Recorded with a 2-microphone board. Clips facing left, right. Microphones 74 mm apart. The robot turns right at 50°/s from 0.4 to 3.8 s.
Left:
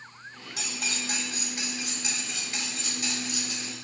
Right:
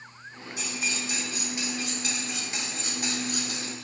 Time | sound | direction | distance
0.6 | cutlery clinking | 100° left | 3 m